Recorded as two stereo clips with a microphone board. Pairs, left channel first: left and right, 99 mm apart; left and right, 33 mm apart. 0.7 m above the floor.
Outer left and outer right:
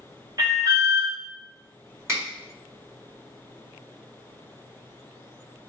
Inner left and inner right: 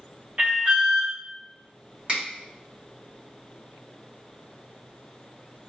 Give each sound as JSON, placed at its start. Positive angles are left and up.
{"t": 0.4, "sound": "an alarm", "side_deg": -35, "distance_m": 1.0}
{"t": 2.1, "sound": "a finger snap", "side_deg": -30, "distance_m": 1.9}